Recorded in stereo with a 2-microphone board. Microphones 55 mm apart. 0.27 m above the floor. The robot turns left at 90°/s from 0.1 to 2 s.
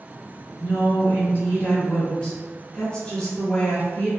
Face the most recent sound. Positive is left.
turn(degrees=25)